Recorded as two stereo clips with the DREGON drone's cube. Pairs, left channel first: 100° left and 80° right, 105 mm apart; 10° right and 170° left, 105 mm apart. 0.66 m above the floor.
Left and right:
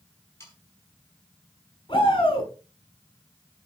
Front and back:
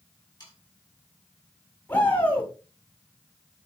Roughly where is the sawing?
Ahead left.